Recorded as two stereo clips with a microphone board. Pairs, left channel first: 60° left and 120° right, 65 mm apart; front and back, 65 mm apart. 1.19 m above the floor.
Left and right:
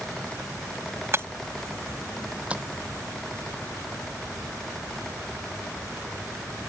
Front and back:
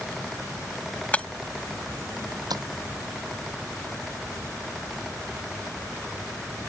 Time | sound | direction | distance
1.1 | breaking glass | 70° right | ?
2.5 | tapping | 170° left | ?